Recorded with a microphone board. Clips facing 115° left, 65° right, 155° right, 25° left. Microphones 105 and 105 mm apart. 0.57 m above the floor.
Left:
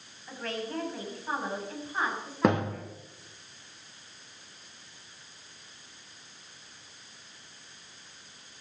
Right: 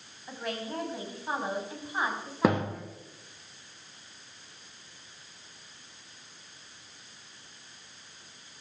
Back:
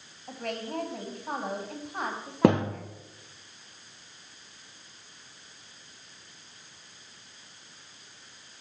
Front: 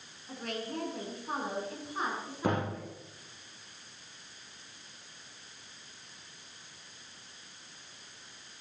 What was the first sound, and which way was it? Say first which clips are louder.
A woman speaking: even, back 3 dB; 140° right.